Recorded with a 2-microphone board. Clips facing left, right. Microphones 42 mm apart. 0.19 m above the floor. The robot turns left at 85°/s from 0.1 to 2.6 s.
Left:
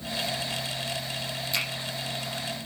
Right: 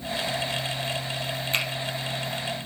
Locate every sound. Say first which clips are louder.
1.5 s a finger snap: right 3 dB; 45° right (ahead or behind), 5 m; by 1.6 s 35° right (ahead or behind), 5 m